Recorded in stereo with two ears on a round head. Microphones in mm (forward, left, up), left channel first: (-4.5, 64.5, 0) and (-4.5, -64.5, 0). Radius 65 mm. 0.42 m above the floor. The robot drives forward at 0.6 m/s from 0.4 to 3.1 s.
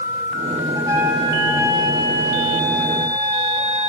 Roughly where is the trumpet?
Right.